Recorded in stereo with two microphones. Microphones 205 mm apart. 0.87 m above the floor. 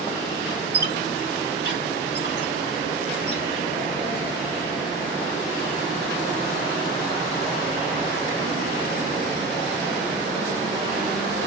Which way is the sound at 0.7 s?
55° right (ahead or behind).